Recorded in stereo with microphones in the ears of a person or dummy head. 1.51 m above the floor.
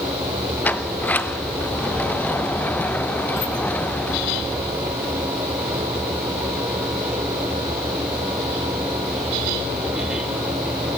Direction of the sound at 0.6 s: 5° left (ahead or behind).